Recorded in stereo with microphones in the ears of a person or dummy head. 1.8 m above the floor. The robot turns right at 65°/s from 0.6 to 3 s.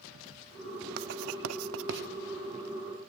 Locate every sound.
1.0 s writing: 50° right (ahead or behind), 0.7 m; by 2.1 s 55° right (ahead or behind), 0.7 m